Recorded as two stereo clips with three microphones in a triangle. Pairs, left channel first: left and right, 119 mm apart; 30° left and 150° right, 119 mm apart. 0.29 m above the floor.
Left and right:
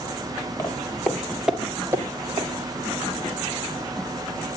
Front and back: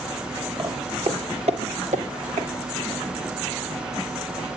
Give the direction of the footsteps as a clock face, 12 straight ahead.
7 o'clock.